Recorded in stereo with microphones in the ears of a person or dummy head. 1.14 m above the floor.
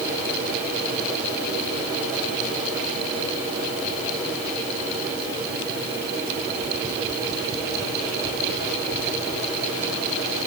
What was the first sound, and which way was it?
Only background noise.